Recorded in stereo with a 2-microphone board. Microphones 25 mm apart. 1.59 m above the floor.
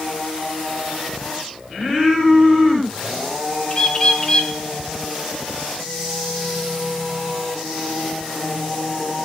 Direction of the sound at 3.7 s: 25° left (ahead or behind).